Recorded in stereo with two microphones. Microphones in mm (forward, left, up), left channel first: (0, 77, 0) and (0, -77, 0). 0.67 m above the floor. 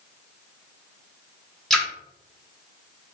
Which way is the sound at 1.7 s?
5° left (ahead or behind).